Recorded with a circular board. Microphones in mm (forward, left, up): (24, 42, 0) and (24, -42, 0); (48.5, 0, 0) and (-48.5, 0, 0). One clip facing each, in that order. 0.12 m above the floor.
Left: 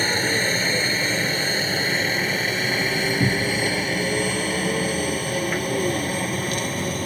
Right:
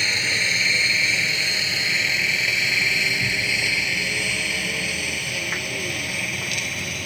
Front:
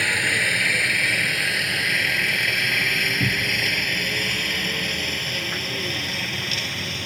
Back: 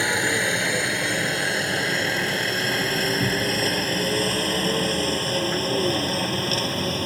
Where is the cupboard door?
100° left.